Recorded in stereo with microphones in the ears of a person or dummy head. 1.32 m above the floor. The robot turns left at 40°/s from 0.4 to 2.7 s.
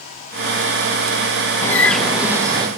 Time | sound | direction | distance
1.6 | a bird | 20° left | 0.9 m